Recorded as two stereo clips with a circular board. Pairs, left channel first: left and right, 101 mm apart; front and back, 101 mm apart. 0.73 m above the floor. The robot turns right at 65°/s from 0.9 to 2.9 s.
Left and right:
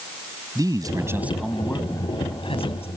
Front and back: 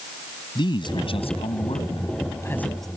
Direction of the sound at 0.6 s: 40° right.